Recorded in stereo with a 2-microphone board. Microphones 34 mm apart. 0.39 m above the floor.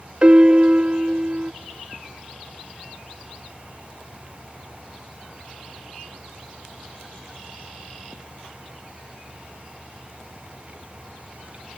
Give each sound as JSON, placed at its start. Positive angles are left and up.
{"t": 0.2, "sound": "a piano", "side_deg": -30, "distance_m": 0.6}